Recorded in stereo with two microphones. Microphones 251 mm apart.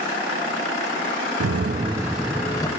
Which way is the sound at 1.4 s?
80° right.